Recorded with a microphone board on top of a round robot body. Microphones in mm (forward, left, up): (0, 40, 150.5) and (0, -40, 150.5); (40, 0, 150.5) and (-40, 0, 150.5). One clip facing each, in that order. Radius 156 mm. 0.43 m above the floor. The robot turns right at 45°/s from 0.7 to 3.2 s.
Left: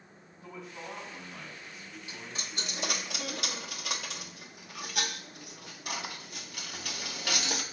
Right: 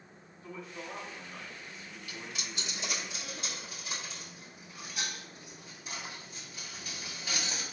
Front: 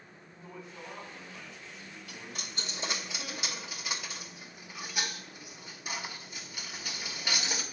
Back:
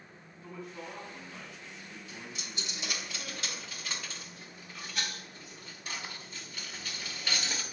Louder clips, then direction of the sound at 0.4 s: Even, back 2 dB; 70° left.